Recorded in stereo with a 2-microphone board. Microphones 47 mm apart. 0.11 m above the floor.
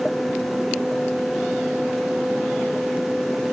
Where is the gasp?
No gasp in this recording.